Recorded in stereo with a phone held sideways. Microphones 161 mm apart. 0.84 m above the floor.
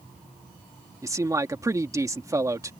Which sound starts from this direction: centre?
A man speaking, at 1.0 s.